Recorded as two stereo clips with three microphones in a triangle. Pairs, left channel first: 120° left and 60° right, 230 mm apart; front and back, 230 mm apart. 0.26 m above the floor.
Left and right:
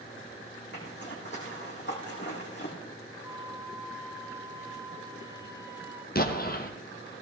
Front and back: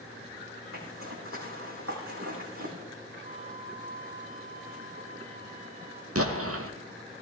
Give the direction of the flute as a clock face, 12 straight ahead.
4 o'clock.